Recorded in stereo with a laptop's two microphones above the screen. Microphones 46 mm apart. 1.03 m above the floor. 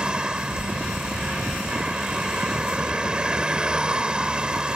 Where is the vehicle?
20° right (ahead or behind).